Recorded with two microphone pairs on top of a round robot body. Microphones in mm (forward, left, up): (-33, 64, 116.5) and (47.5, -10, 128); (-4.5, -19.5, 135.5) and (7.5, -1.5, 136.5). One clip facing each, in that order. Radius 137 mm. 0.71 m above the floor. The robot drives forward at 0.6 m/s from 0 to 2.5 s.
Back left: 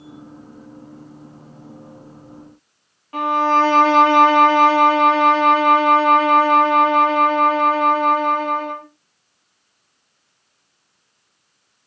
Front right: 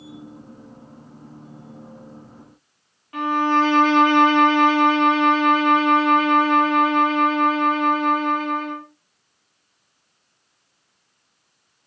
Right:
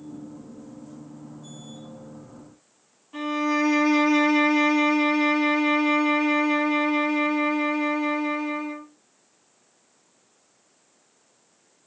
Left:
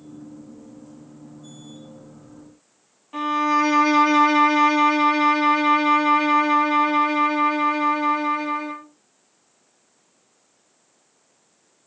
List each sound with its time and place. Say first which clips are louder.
3.1 s a violin: back left 3 dB, left 4 dB; 110° left, 1.3 m